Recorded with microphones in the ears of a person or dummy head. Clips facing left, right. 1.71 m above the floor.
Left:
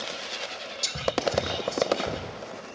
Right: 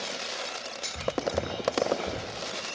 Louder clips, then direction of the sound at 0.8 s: Left 3 dB; 60° left (ahead or behind).